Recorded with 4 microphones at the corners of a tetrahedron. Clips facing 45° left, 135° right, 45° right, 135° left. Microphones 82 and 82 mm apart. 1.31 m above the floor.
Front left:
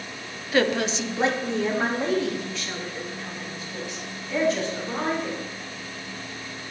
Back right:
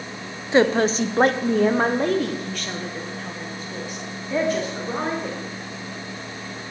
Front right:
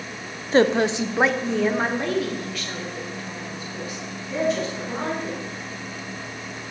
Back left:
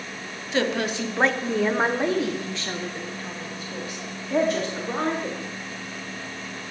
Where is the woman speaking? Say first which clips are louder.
Back right 5 dB, front right 7 dB; 75° right, 0.6 m; by 5.4 s straight behind, 2.5 m.